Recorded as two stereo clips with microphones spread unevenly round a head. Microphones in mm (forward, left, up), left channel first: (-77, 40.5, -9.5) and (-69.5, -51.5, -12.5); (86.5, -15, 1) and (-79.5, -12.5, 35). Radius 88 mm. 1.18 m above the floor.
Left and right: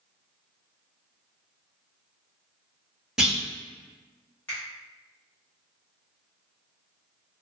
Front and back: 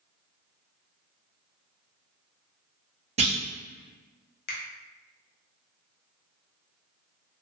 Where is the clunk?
160° right, 0.7 m.